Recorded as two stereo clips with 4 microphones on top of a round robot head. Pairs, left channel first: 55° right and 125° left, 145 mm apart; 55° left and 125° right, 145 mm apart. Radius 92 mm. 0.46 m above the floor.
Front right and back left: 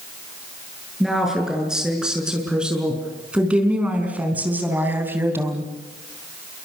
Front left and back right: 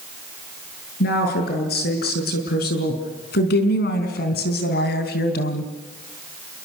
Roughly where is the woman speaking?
Ahead left.